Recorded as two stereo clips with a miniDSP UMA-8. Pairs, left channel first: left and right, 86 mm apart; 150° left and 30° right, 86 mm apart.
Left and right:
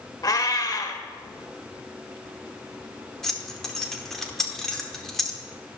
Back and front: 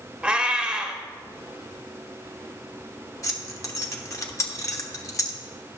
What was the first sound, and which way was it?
A cat meowing, 45° left.